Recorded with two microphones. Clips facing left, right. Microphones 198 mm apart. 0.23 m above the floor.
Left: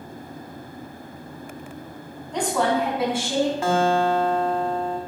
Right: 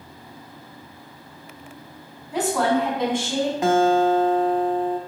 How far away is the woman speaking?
About 1.8 m.